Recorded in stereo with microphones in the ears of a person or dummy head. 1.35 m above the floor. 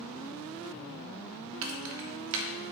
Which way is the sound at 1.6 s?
70° right (ahead or behind).